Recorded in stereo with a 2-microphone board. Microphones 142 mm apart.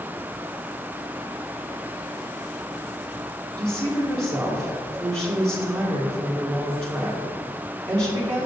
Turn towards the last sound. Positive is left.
turn(degrees=-40)  # may be behind; listen again after turning